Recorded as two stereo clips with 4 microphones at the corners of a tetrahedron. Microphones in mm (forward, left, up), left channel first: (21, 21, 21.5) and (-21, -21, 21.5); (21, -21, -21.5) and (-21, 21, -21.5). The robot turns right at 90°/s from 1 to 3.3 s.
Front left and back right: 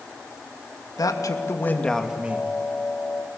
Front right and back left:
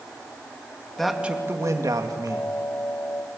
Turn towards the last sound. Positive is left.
turn(degrees=-115)